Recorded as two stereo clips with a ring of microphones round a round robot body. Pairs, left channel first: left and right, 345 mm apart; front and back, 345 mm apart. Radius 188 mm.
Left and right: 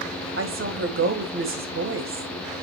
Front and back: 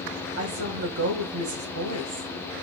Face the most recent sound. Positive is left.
turn(degrees=-135)